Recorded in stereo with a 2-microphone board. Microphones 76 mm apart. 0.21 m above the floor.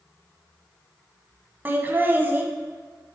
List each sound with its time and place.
1.6 s laughter: 25° right (ahead or behind), 1.3 m